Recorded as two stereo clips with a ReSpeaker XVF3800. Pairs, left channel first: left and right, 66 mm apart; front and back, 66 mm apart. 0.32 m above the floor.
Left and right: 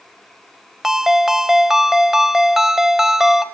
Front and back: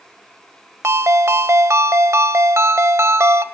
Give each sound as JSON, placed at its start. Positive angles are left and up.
{"t": 0.8, "sound": "a ringtone", "azimuth_deg": -170, "distance_m": 0.8}